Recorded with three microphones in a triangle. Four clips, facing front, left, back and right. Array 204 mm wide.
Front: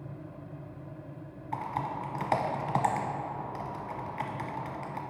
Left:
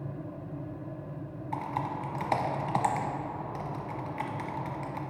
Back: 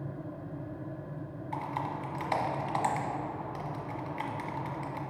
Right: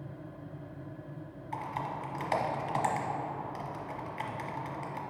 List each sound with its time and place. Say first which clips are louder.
1.5 s typing on a keyboard: left 3 dB, front 2 dB; 35° left, 0.9 m